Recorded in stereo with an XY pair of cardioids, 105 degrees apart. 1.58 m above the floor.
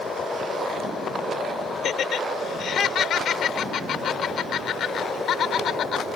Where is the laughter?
60° left.